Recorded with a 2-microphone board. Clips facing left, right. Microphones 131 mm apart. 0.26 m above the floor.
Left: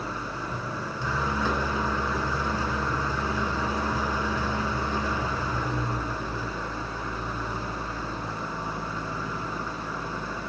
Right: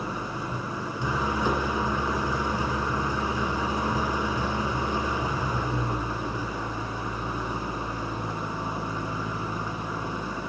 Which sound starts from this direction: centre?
An engine running, at 0.0 s.